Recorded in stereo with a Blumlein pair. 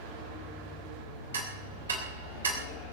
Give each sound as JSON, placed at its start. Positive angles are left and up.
{"t": 1.3, "sound": "ticking", "azimuth_deg": -70, "distance_m": 3.0}